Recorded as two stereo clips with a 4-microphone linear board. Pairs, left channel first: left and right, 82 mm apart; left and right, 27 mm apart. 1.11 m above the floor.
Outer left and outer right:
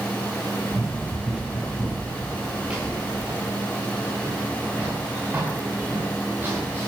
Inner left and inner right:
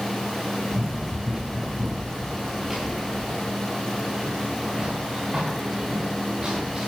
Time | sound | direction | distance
0.7 | running footsteps | 5° right (ahead or behind) | 7 m